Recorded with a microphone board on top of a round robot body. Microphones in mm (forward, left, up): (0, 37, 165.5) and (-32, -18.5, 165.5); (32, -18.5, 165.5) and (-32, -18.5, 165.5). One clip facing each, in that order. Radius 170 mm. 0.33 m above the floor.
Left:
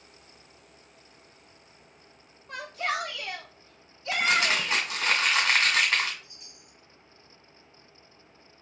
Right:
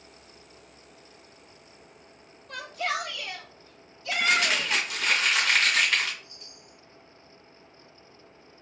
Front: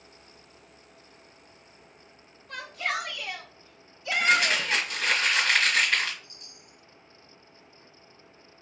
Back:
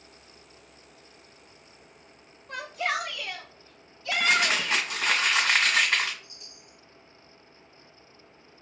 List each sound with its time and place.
2.5 s a shout: 105° left, 1.9 m; by 4.9 s 5° left, 1.6 m
4.1 s crumpling: 110° left, 1.9 m
6.2 s a chime: 15° right, 1.4 m